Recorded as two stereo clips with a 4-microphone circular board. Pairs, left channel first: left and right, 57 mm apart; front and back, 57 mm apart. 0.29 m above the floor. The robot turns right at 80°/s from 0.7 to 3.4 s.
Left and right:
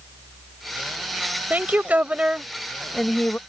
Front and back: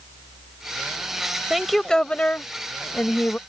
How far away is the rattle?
I don't hear a rattle.